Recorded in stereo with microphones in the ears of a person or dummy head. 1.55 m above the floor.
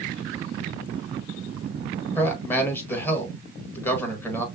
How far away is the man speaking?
About 1.5 m.